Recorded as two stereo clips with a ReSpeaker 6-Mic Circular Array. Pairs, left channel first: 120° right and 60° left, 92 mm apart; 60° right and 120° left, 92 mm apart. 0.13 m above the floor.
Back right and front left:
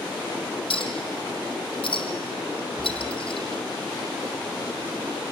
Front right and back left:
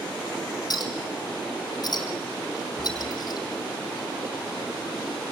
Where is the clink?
100° right, 3 m.